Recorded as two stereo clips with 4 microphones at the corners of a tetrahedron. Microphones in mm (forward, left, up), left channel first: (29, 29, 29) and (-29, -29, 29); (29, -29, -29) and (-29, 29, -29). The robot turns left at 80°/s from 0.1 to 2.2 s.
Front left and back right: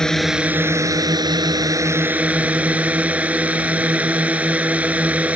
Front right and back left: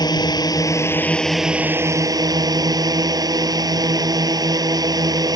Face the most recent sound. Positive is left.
turn(degrees=155)